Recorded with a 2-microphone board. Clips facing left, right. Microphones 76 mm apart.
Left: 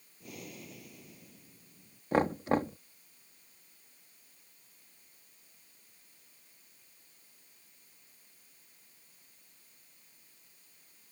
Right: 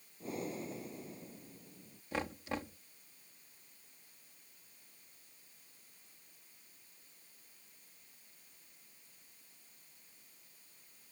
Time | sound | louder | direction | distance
0.2 | breathing | right 7 dB | 30° right (ahead or behind) | ?
2.1 | knocking | left 11 dB | 45° left (ahead or behind) | ?